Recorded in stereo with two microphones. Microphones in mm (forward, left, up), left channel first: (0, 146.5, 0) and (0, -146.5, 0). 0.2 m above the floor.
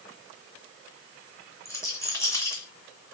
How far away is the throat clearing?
No throat clearing in this recording.